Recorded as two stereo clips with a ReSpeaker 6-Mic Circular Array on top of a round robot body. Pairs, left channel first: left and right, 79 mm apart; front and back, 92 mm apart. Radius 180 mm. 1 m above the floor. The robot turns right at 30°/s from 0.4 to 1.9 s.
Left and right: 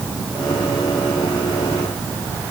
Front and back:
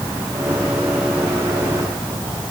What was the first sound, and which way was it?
Only background noise.